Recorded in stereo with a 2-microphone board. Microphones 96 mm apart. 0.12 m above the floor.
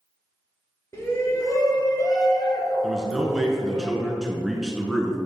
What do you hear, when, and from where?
0.9 s a shout: 30° left (ahead or behind), 1.3 m; by 3.8 s 35° left (ahead or behind), 2.0 m
2.8 s a man speaking: 5° right (ahead or behind), 1.1 m